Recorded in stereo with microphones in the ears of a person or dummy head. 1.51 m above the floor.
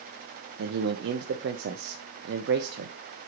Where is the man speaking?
60° right (ahead or behind), 0.8 m.